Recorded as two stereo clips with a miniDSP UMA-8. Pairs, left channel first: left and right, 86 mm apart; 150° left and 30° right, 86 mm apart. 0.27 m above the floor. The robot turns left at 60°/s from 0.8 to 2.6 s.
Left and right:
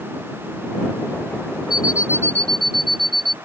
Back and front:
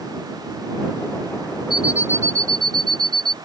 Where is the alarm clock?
55° left; by 3.3 s 5° left.